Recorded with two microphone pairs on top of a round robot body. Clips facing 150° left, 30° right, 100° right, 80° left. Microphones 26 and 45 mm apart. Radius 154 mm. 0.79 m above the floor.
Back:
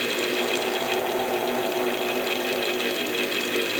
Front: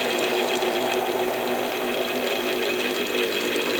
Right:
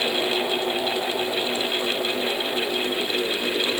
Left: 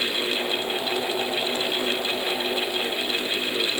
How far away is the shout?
I don't hear a shout.